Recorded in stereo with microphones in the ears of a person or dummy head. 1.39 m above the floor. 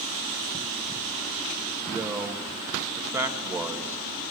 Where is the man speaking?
15° right (ahead or behind), 1.9 m.